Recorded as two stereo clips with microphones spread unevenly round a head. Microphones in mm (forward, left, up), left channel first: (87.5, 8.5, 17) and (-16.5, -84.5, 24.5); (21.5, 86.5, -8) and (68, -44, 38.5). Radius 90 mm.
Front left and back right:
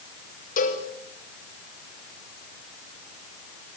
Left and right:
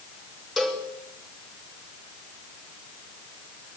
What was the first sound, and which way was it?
A cowbell, 20° left.